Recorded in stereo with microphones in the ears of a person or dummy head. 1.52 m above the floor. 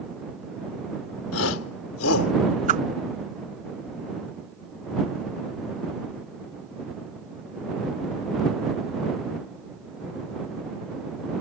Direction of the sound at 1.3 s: 80° left.